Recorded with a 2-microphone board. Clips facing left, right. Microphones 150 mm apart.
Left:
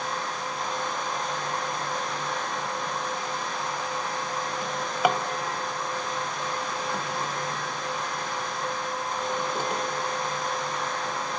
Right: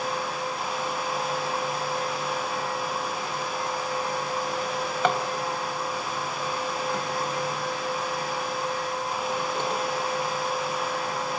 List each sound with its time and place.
4.6 s a drawer: 10° left (ahead or behind), 1.4 m